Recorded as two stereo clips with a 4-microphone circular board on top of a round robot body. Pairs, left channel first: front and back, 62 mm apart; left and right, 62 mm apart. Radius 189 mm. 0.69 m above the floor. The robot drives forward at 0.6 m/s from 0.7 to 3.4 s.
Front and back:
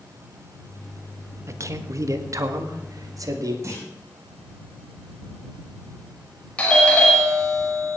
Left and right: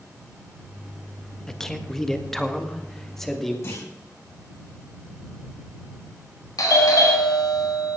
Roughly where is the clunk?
Behind left.